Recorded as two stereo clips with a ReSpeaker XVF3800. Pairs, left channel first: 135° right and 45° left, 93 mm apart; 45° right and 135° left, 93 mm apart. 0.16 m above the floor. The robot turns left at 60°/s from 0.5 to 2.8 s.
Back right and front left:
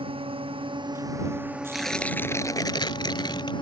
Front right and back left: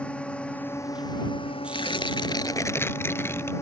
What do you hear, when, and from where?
0.0 s a drone: 35° left; by 3.6 s 105° right
1.7 s tearing paper: 40° right; by 3.5 s 105° right